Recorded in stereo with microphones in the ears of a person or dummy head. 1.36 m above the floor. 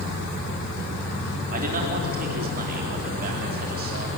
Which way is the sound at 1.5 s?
45° right (ahead or behind).